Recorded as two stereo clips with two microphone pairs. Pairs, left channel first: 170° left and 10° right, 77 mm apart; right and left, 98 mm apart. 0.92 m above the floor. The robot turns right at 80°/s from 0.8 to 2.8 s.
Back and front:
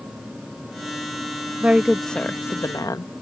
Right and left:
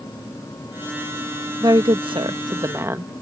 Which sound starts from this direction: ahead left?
A woman speaking, at 1.6 s.